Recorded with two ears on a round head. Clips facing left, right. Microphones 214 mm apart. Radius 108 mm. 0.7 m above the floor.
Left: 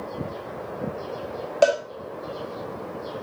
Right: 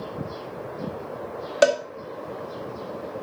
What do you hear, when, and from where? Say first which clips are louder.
1.6 s a cowbell: even; 25° right (ahead or behind), 1.4 m